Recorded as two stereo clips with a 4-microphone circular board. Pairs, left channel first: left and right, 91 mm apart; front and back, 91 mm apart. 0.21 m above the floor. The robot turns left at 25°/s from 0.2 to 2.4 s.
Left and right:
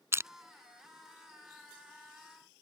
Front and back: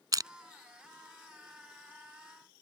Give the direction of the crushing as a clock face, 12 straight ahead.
5 o'clock.